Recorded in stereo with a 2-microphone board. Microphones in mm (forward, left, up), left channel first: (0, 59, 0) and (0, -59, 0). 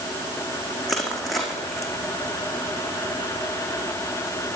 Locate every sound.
0.9 s crushing: centre (ahead or behind), 5.5 m